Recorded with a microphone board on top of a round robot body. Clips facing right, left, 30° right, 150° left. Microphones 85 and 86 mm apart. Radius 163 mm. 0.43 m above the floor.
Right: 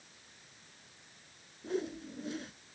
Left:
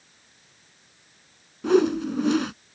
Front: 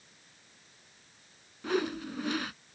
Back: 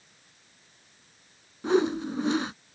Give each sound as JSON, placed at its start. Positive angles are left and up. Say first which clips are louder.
{"t": 1.6, "sound": "a whoosh", "louder": "left 17 dB, back 7 dB", "azimuth_deg": 85}